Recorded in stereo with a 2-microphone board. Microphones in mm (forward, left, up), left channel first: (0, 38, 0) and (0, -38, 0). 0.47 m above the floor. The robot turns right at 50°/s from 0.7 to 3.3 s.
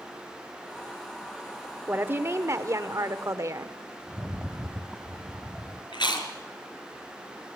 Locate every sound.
1.9 s a woman speaking: 145° right, 1.2 m; by 3.8 s 70° right, 1.2 m
4.1 s a rattle: centre (ahead or behind), 1.2 m
5.9 s chewing: 85° left, 3.5 m